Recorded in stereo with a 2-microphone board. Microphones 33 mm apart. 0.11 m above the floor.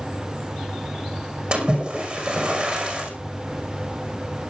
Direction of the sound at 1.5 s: 35° right (ahead or behind).